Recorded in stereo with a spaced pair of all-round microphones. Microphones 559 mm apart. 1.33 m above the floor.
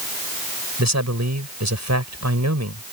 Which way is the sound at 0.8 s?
30° right (ahead or behind).